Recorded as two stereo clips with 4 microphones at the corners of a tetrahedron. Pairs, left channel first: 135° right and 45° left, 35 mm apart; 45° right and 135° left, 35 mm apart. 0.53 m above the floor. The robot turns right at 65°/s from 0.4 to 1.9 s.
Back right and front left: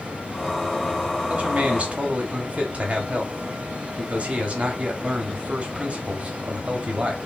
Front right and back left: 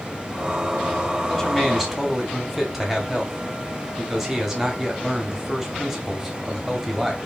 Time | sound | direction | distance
1.3 | a man speaking | 15° left | 0.9 m